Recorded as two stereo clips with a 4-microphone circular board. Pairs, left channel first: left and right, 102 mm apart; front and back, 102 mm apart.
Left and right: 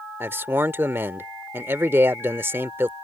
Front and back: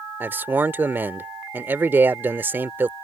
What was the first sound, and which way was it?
A man speaking, 130° right.